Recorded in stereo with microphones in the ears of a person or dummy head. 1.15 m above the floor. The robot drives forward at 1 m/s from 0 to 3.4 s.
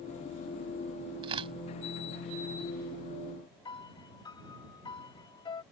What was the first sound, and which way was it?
Tearing paper, 30° right (ahead or behind).